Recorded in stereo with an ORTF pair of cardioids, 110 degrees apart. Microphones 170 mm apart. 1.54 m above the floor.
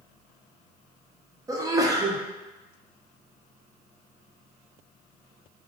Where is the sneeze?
20° right, 0.9 m.